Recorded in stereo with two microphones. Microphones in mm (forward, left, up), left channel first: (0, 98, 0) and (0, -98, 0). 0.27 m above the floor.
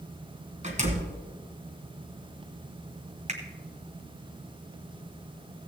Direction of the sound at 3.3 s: 40° right (ahead or behind).